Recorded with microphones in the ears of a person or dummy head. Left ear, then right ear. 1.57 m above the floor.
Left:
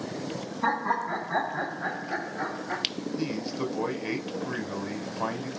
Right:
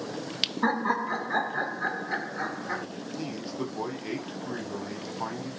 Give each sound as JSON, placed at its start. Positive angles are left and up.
{"t": 0.6, "sound": "laughter", "side_deg": -70, "distance_m": 2.0}
{"t": 3.2, "sound": "a man speaking", "side_deg": 5, "distance_m": 1.1}